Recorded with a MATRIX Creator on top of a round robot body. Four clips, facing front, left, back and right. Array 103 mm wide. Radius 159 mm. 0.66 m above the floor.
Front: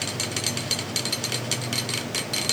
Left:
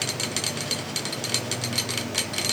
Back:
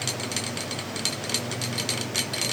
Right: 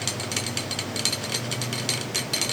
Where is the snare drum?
No snare drum in this recording.